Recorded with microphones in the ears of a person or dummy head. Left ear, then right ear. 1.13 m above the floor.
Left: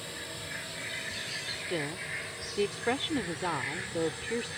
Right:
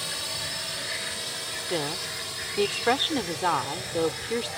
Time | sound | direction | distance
0.0 | a drone | 55° right (ahead or behind) | ?
1.6 | a woman speaking | 40° right (ahead or behind) | ?